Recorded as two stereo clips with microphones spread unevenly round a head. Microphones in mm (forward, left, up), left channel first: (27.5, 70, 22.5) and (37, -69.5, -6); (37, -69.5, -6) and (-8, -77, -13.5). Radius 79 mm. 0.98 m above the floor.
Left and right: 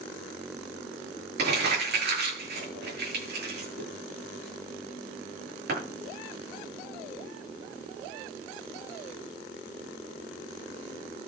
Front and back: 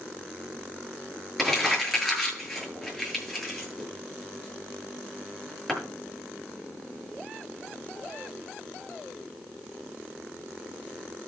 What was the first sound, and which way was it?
Crumpling, 80° right.